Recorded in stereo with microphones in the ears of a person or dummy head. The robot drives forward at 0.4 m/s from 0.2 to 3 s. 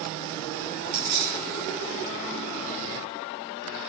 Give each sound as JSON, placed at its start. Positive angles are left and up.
{"t": 0.9, "sound": "keys jangling", "side_deg": -30, "distance_m": 0.6}